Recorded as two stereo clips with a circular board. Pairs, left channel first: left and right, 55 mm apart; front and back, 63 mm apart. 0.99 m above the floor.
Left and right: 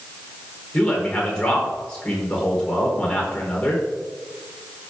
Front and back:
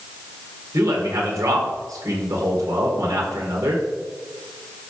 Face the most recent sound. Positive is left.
turn(degrees=160)